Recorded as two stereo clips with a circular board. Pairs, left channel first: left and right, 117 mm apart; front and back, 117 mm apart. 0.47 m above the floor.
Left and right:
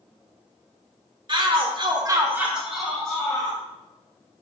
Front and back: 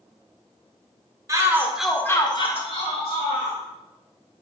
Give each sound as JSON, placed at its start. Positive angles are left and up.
{"t": 1.3, "sound": "a shout", "azimuth_deg": -125, "distance_m": 1.5}